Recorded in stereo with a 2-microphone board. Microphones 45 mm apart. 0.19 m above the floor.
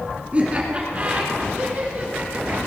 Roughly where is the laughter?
Right.